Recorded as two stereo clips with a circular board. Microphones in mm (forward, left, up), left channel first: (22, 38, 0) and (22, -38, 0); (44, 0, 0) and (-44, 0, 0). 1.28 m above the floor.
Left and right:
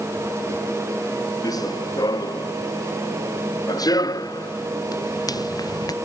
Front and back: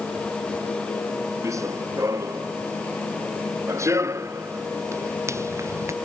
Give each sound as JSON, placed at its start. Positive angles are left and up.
{"t": 1.4, "sound": "running footsteps", "azimuth_deg": 125}